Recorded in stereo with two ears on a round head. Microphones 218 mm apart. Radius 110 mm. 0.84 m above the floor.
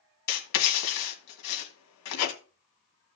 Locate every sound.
0.3 s writing: 75° left (ahead or behind), 2.0 m